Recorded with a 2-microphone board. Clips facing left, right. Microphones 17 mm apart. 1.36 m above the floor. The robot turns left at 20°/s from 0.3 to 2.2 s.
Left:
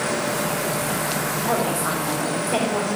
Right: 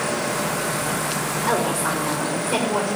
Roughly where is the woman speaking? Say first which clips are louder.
Right 2 dB; right.